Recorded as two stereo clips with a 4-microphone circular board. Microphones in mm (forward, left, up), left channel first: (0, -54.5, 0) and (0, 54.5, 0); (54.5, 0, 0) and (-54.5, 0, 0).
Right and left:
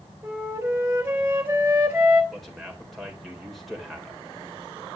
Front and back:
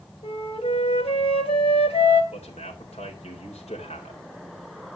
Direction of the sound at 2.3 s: Straight ahead.